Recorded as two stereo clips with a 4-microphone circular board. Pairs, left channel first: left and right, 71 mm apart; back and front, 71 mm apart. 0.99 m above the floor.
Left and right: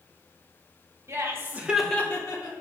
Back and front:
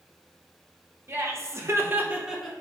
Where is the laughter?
50° right, 1.1 m; by 2.5 s 85° left, 0.8 m.